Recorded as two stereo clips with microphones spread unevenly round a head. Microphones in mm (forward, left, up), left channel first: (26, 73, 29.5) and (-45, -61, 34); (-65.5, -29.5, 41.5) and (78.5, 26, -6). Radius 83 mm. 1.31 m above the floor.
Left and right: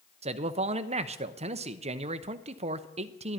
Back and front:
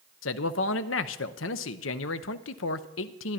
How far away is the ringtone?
No ringtone in this recording.